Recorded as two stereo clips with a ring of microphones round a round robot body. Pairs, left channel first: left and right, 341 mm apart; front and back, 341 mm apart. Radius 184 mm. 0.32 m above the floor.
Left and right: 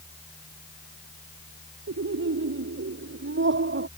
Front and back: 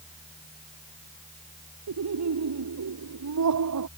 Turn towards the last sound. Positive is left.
turn(degrees=-145)